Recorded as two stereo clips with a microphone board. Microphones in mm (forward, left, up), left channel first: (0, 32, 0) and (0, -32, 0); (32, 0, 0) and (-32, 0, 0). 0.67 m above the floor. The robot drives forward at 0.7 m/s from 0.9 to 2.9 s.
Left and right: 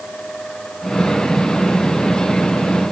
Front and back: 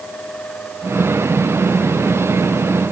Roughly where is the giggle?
No giggle in this recording.